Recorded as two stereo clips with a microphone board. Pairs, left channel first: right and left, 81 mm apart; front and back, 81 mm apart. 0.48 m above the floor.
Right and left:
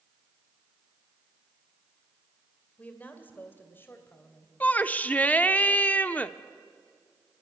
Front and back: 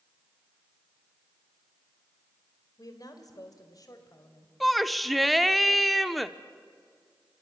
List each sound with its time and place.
2.8 s a woman speaking: 20° right, 2.5 m; by 4.5 s 35° right, 3 m
4.6 s a shout: 85° right, 0.7 m